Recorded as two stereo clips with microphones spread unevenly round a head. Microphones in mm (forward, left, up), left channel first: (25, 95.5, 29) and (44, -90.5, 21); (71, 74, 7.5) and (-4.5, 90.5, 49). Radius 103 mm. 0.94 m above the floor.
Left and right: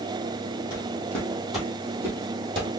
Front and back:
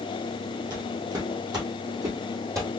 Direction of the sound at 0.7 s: 170° left.